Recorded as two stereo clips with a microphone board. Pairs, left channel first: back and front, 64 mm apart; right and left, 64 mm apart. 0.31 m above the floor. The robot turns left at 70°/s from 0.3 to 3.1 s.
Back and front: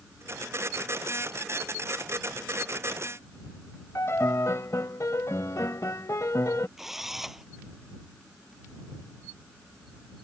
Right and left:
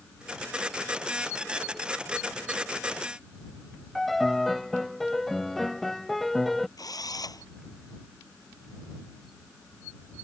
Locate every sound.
4.0 s a piano: 175° right
6.8 s a drill: 85° right